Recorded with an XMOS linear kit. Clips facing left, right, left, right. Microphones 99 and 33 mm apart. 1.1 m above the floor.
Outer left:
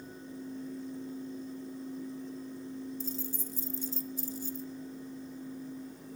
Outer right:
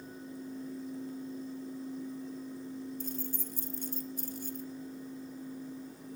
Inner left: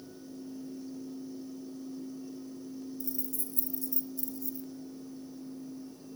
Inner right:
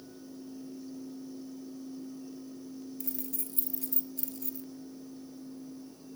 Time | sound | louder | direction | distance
3.0 | keys jangling | even, inner left 1 dB | 55° right (ahead or behind) | 1.0 m